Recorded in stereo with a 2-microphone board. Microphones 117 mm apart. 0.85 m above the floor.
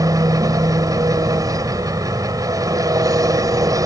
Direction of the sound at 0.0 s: 30° right (ahead or behind).